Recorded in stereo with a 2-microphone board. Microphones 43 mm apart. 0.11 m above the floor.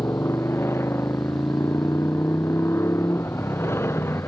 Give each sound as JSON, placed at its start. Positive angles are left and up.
{"t": 0.0, "sound": "a motorcycle", "side_deg": 80}